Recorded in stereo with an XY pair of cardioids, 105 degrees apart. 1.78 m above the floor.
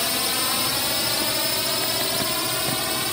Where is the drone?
20° left; by 3.1 s 10° left.